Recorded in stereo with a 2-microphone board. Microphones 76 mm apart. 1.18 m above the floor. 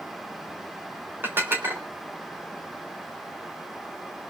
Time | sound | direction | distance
1.2 | dishes clattering | 30° right (ahead or behind) | 4 m